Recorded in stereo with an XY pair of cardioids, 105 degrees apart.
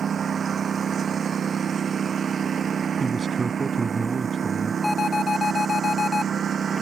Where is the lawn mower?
45° right.